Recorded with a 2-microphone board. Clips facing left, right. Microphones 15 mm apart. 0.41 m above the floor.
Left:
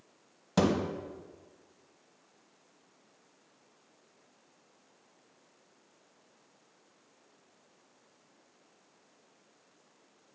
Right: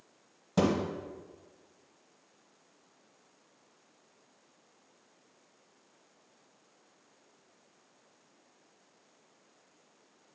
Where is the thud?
30° left (ahead or behind), 0.8 m.